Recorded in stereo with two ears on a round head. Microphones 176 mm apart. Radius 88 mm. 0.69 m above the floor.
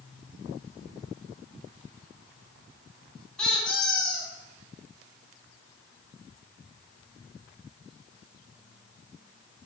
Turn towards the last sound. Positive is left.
turn(degrees=5)  # may be behind; listen again after turning